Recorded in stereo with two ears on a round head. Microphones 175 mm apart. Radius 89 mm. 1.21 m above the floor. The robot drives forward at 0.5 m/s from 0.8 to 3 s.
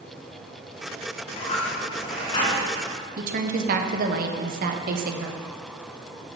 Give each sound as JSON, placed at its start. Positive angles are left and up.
{"t": 1.2, "sound": "a dropped coin", "side_deg": 35, "distance_m": 2.0}
{"t": 3.2, "sound": "a woman speaking", "side_deg": -45, "distance_m": 0.8}